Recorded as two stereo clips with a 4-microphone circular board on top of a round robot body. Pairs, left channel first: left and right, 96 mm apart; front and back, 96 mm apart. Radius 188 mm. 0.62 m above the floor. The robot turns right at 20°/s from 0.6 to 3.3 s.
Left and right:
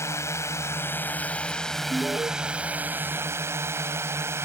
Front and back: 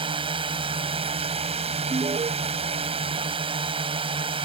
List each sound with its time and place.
0.0 s a drone: 150° left; by 4.5 s 155° right
1.9 s an alarm: 160° right; by 2.3 s 150° right